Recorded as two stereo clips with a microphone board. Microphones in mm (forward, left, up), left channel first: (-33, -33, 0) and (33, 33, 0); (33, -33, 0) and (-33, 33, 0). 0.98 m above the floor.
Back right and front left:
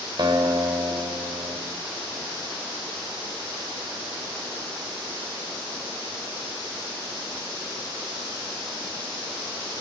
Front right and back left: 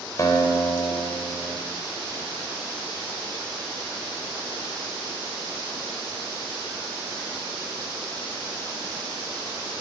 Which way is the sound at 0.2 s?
10° left.